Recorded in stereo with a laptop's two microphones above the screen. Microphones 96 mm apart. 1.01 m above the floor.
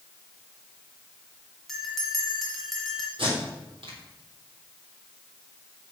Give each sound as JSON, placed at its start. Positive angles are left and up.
{"t": 1.7, "sound": "a bell", "side_deg": 0, "distance_m": 2.0}
{"t": 3.2, "sound": "tape being pulled", "side_deg": -65, "distance_m": 3.5}